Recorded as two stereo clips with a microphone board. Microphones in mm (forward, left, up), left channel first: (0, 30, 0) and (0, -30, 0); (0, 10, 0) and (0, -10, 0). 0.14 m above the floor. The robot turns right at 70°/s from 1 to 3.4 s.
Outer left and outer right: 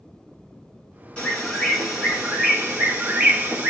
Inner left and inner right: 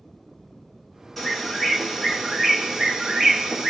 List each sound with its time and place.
1.2 s a bird: 20° left (ahead or behind), 1.7 m; by 3.7 s 25° right (ahead or behind), 1.7 m